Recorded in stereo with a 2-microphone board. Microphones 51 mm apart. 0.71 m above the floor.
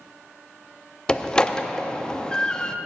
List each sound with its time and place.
1.1 s a door slam: 15° left (ahead or behind), 0.6 m